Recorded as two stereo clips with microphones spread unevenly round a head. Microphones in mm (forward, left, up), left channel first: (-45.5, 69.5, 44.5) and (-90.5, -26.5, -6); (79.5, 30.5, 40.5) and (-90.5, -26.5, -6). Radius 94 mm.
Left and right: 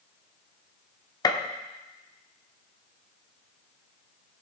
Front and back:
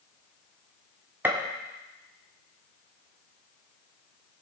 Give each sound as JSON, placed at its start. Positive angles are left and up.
{"t": 1.2, "sound": "a gunshot", "azimuth_deg": 115, "distance_m": 1.1}